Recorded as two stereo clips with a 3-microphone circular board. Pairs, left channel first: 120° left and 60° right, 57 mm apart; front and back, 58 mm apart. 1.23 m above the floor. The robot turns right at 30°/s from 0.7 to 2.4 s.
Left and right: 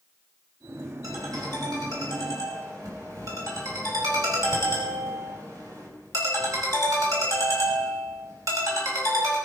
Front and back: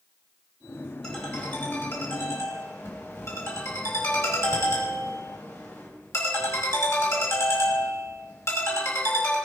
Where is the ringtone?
80° right, 5 m; by 9.4 s 40° right, 5 m.